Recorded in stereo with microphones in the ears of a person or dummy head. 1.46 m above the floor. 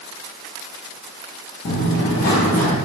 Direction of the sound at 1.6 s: 55° left (ahead or behind).